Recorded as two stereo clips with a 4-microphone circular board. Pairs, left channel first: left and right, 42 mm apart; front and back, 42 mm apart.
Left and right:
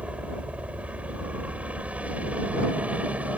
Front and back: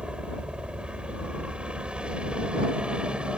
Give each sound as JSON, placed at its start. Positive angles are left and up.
{"t": 0.0, "sound": "a helicopter", "azimuth_deg": -130}